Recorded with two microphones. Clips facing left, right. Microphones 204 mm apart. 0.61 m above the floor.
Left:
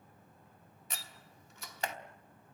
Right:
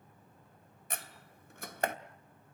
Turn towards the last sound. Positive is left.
turn(degrees=-55)  # may be behind; listen again after turning